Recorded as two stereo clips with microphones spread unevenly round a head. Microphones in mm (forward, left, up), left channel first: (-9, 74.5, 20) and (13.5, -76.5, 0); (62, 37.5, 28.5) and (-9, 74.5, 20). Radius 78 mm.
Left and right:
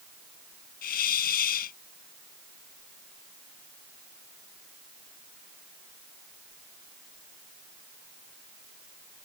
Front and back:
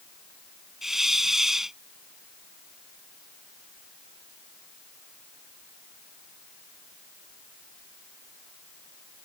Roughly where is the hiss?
Ahead left.